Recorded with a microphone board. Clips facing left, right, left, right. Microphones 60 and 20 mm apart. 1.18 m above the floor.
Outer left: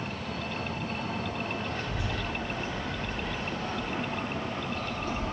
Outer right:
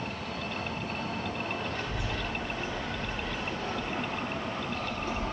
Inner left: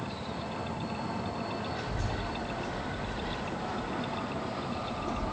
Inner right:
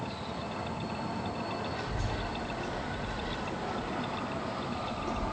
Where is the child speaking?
5° left (ahead or behind), 2 m; by 5.2 s 35° right (ahead or behind), 3 m.